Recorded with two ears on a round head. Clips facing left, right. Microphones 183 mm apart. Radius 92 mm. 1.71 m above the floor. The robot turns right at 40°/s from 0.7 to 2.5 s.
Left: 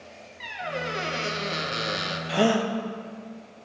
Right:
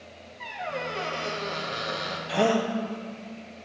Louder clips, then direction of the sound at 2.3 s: Left 1 dB; centre (ahead or behind).